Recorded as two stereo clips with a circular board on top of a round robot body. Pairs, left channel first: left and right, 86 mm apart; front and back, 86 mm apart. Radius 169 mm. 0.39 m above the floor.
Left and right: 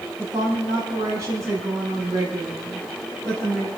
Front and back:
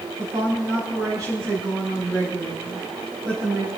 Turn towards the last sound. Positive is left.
turn(degrees=-135)